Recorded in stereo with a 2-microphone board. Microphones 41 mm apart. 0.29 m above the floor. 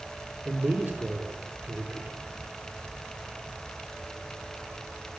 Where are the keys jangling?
I don't hear keys jangling.